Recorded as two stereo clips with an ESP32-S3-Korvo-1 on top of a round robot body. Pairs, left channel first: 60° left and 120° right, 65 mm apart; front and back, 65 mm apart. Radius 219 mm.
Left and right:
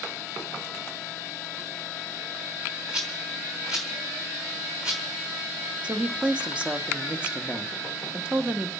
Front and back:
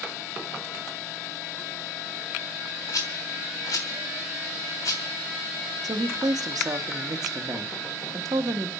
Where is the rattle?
40° right, 1.1 m.